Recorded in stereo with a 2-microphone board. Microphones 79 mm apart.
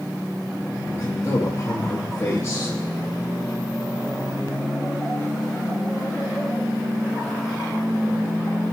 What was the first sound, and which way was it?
A man speaking, 35° left (ahead or behind).